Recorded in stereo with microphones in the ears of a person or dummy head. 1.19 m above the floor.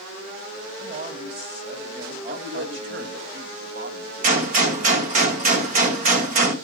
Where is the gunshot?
45° right (ahead or behind), 1.7 m.